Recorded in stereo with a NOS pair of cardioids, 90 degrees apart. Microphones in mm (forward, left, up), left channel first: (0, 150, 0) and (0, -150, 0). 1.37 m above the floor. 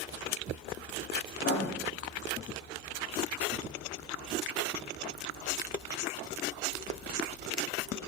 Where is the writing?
40° left, 0.6 m.